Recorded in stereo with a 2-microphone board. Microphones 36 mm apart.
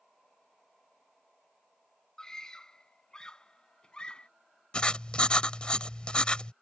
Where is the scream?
15° left (ahead or behind); by 4.3 s 25° left (ahead or behind).